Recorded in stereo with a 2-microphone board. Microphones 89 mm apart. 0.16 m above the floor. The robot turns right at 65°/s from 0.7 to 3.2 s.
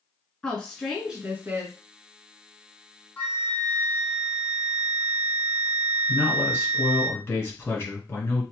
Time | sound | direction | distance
0.4 | a woman speaking | 165° left | 1.7 m
3.2 | a flute | 20° left (ahead or behind) | 1.4 m
6.1 | a man speaking | 30° left (ahead or behind) | 2.0 m